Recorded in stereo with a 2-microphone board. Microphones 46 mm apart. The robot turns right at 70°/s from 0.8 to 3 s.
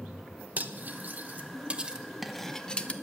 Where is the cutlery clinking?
40° right (ahead or behind), 0.9 m; by 2.9 s 25° left (ahead or behind), 0.9 m.